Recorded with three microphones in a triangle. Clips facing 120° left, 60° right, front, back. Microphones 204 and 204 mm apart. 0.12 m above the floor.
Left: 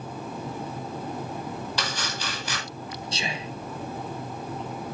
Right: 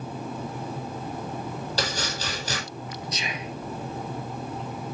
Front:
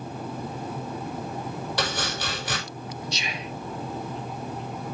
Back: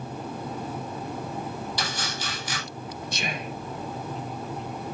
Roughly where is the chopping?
Ahead.